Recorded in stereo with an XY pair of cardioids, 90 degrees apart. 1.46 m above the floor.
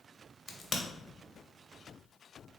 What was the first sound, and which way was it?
A crack, 30° left.